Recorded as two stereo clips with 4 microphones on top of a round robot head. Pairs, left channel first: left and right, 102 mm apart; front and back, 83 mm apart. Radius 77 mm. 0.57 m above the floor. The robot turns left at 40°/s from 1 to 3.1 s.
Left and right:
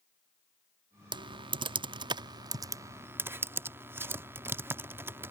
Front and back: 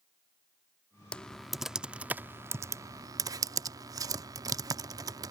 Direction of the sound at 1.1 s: 75° right.